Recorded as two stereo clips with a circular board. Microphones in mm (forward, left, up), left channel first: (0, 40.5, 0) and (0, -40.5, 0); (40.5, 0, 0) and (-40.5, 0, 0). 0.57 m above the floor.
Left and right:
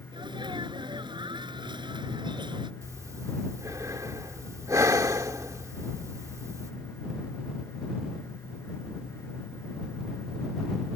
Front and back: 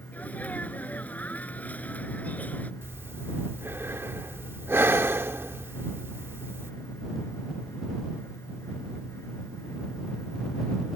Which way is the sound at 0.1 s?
70° right.